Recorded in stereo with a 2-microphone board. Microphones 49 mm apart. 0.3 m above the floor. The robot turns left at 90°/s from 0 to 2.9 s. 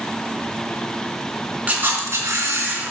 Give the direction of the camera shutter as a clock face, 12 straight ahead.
1 o'clock.